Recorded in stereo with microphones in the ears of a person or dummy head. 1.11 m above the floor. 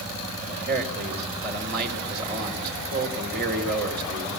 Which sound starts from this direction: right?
A man speaking, at 0.5 s.